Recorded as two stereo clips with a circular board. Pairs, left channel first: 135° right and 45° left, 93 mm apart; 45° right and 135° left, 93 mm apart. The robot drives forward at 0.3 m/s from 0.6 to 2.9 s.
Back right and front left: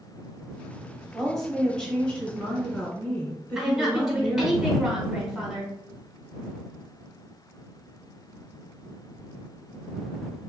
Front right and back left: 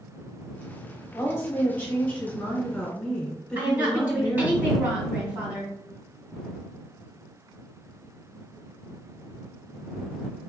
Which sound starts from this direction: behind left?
A woman speaking, at 3.5 s.